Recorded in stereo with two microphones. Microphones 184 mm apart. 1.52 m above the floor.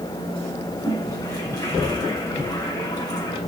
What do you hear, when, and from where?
0.8 s a toilet flushing: 20° left (ahead or behind), 4.5 m